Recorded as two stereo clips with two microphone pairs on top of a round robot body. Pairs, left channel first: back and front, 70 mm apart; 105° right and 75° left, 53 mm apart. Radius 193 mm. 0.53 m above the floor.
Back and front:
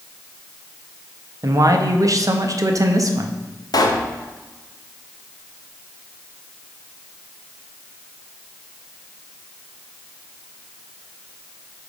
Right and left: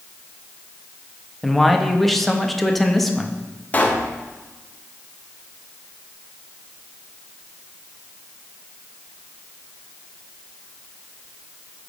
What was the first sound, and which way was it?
A man speaking, 10° right.